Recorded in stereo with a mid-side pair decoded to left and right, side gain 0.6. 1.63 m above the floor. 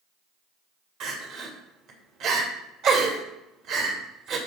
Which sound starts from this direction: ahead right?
Crying, at 1.0 s.